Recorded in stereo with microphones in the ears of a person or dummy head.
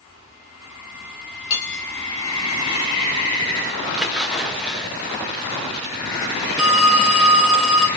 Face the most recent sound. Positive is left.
turn(degrees=-5)  # may be behind; listen again after turning